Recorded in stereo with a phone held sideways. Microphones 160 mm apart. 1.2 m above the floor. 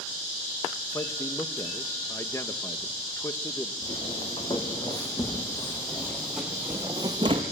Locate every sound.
0.9 s a man speaking: 20° left (ahead or behind), 0.9 m
3.8 s footsteps: 40° left (ahead or behind), 4 m; by 7.4 s 40° right (ahead or behind), 1.9 m